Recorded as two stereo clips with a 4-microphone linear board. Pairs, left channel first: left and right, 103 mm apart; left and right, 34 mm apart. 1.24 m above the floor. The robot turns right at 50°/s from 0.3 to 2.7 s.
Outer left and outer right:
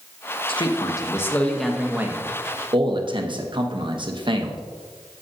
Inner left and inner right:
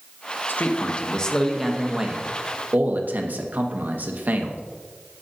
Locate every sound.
0.5 s a man speaking: 120° left, 1.0 m; by 4.6 s 130° right, 1.0 m